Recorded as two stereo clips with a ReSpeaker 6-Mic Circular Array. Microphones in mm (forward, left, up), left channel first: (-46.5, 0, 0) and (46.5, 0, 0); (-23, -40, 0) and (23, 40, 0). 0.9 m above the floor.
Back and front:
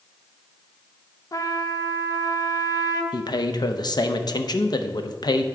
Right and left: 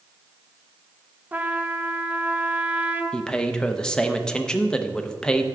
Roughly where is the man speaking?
Behind.